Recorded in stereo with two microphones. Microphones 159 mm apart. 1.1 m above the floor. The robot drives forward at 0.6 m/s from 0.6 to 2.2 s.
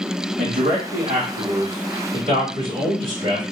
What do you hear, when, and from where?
0.4 s a man speaking: 70° right (ahead or behind), 2 m; by 3.4 s 60° right (ahead or behind), 2.5 m